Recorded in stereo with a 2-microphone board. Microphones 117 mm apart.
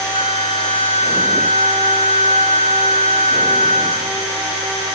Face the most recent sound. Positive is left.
turn(degrees=70)  # may be behind; listen again after turning